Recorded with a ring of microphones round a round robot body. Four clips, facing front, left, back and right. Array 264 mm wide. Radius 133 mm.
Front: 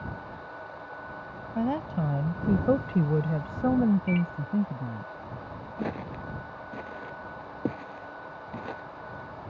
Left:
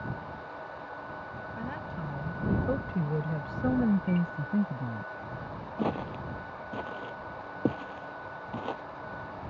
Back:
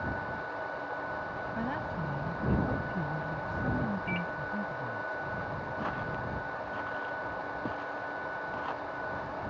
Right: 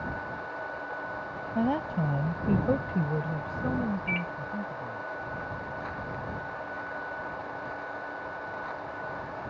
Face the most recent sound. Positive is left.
turn(degrees=55)